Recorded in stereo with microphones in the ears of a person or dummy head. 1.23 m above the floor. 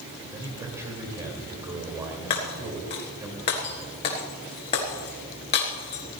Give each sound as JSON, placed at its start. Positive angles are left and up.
{"t": 0.3, "sound": "a man speaking", "side_deg": -15, "distance_m": 2.5}
{"t": 2.3, "sound": "breaking glass", "side_deg": 30, "distance_m": 1.5}